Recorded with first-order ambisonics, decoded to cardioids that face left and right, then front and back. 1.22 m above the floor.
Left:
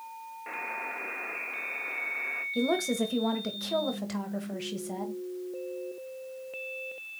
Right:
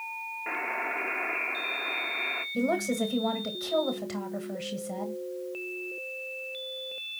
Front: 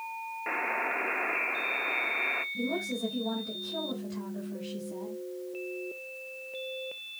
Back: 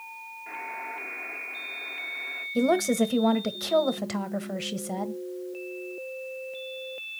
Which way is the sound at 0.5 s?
20° right.